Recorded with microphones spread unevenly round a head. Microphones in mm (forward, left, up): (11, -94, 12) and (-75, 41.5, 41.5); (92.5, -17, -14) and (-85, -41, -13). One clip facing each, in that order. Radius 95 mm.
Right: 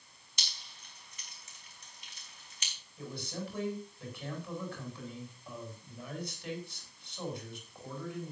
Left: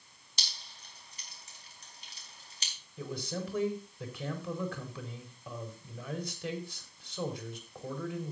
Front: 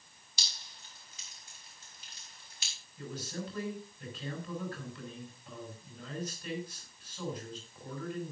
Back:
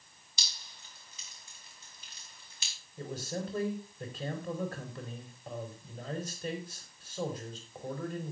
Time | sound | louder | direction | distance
0.4 | dripping | left 2 dB, even | straight behind | 4.5 m
3.0 | a man speaking | left 3 dB, back 3 dB | 135° left | 5 m